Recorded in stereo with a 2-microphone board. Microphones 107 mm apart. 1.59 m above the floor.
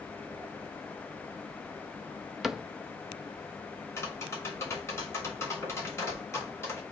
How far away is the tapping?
About 3.5 m.